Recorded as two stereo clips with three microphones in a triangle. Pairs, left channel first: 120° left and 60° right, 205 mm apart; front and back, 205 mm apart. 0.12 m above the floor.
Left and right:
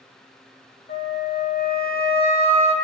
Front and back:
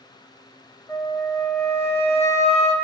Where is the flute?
80° left, 1.9 m.